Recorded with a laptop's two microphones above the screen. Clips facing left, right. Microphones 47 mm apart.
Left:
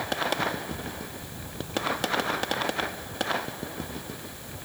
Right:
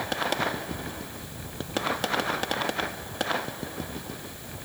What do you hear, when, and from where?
Only background noise.